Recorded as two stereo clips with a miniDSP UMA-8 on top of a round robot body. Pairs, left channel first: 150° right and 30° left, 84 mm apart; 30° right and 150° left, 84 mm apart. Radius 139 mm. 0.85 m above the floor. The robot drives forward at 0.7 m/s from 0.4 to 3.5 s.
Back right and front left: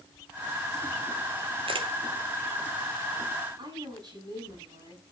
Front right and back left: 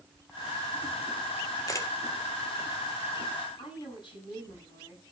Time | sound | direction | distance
1.7 | a camera shutter | 20° left | 1.6 m
3.6 | a woman speaking | 5° right | 7 m